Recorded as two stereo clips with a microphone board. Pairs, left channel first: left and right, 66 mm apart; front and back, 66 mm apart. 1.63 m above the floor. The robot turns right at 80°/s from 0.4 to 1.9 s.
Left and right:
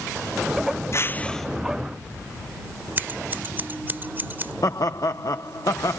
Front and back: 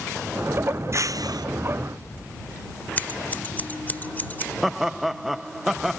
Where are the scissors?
50° right.